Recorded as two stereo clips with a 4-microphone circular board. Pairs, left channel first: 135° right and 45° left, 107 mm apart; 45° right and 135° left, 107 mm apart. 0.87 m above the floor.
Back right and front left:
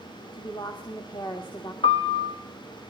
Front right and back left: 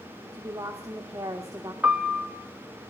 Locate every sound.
0.3 s a woman speaking: 170° right, 1.8 m
1.8 s a piano: 150° right, 1.1 m